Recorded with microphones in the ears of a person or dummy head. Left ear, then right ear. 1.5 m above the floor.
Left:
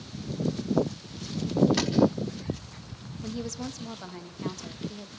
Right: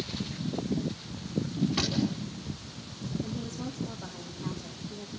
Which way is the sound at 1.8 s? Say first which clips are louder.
Left 1 dB; 40° left (ahead or behind).